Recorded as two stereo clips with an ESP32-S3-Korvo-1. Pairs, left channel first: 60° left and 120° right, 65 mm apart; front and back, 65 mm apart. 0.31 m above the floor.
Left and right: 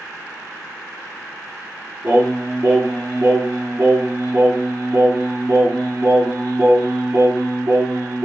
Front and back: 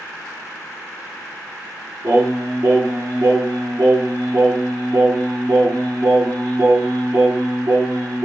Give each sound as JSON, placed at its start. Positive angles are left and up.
{"t": 2.0, "sound": "singing", "azimuth_deg": -165, "distance_m": 1.5}